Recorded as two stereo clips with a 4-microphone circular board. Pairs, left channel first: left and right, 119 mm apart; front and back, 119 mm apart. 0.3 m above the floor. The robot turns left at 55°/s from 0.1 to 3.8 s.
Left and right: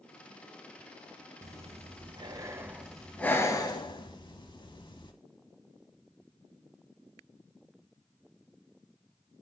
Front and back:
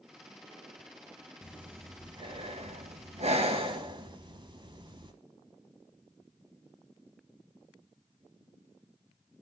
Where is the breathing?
95° right, 0.8 m; by 5.1 s 135° left, 0.8 m.